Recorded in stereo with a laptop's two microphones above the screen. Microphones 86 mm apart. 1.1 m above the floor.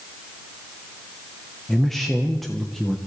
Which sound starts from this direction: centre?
A man speaking, at 1.7 s.